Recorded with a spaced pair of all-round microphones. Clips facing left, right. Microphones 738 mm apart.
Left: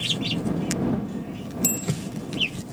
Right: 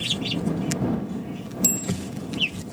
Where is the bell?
45° right (ahead or behind).